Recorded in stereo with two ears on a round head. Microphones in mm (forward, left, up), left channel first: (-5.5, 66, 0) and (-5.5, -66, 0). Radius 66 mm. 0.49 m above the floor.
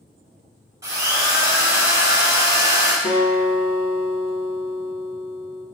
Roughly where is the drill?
Centre.